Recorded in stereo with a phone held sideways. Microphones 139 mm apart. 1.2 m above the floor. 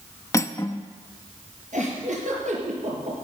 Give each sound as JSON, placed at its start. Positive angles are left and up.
{"t": 0.3, "sound": "cutlery clinking", "side_deg": 20, "distance_m": 0.9}
{"t": 1.7, "sound": "a giggle", "side_deg": -65, "distance_m": 5.0}